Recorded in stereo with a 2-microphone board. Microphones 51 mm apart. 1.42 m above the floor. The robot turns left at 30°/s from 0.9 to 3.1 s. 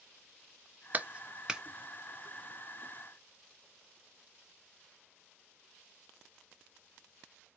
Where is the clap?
35° right (ahead or behind), 0.7 m; by 1.6 s 15° right (ahead or behind), 0.7 m.